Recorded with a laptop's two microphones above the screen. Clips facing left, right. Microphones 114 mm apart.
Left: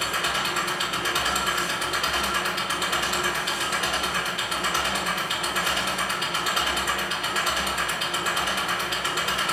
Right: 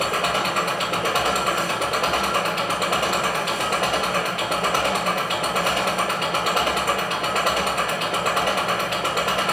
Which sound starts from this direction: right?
An engine running, at 0.0 s.